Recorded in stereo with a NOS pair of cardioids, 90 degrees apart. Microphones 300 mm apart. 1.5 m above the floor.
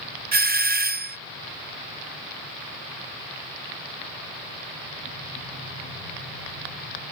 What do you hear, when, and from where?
0.3 s a doorbell: 30° right